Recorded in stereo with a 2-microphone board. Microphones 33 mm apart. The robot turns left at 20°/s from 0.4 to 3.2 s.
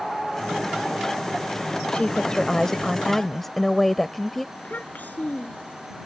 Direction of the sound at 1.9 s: 35° left (ahead or behind).